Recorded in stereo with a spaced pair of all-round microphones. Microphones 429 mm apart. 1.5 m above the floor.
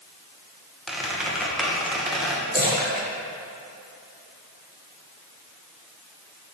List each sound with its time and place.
0.9 s a squeak: centre (ahead or behind), 0.7 m
2.5 s a splash: 20° right (ahead or behind), 1.7 m